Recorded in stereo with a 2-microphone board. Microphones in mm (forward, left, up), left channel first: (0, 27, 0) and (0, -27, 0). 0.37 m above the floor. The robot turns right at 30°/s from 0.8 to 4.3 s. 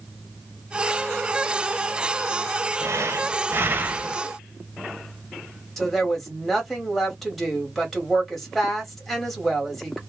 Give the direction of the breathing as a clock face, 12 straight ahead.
2 o'clock.